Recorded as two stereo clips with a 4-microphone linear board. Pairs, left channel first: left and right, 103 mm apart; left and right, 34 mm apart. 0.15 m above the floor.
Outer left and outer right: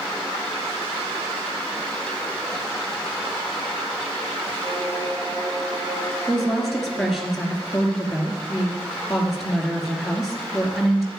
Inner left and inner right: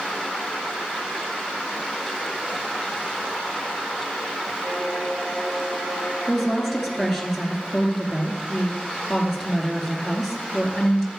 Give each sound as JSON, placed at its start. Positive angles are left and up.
{"t": 4.6, "sound": "a violin", "side_deg": -35, "distance_m": 5.0}
{"t": 6.3, "sound": "a woman speaking", "side_deg": 0, "distance_m": 2.5}